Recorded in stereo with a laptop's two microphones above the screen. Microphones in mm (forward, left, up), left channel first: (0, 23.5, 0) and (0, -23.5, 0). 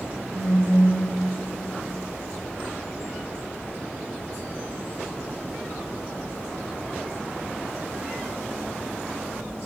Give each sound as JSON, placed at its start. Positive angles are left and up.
{"t": 0.3, "sound": "a phone buzzing", "side_deg": -70, "distance_m": 2.0}